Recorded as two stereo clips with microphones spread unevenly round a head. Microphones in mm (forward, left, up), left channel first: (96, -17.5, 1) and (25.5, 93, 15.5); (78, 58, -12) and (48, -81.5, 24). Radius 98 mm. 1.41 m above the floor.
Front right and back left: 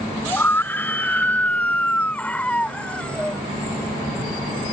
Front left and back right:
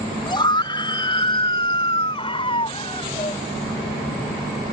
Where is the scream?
20° left; by 3.4 s 25° left.